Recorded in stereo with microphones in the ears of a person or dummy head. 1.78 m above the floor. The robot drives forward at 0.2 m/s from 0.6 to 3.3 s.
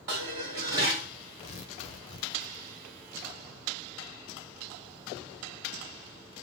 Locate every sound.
0.1 s dishes clattering: 20° right (ahead or behind), 0.7 m
1.4 s tearing paper: 30° left (ahead or behind), 0.6 m; by 2.6 s 25° left (ahead or behind), 0.7 m